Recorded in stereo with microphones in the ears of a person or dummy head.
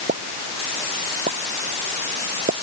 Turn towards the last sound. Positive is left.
turn(degrees=-40)  # may be behind; listen again after turning